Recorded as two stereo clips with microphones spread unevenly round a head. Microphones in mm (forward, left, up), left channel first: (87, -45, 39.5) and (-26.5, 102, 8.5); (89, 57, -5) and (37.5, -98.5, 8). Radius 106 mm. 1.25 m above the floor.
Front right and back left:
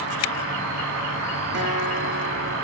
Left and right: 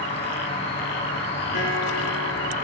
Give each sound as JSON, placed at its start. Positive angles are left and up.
{"t": 0.0, "sound": "an insect", "azimuth_deg": 120, "distance_m": 1.5}
{"t": 1.5, "sound": "a guitar", "azimuth_deg": 105, "distance_m": 5.5}